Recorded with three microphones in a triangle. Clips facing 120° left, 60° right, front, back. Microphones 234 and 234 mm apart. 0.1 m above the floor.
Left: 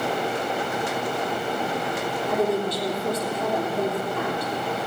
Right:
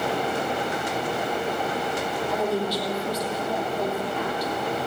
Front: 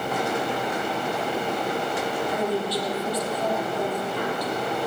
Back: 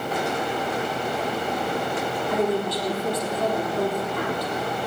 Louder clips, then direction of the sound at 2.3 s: Left 3 dB, back 5 dB; 145° left.